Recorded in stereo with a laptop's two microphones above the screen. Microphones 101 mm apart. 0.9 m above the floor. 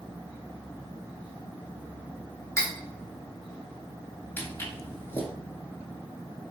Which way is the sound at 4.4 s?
20° left (ahead or behind).